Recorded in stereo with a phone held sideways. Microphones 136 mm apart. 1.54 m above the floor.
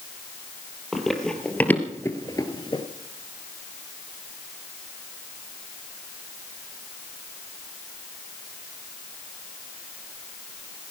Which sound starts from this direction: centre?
Running footsteps, at 0.9 s.